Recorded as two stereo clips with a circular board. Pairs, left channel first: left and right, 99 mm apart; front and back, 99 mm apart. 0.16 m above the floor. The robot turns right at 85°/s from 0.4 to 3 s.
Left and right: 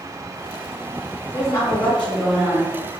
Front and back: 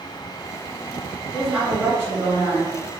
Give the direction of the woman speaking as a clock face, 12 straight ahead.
9 o'clock.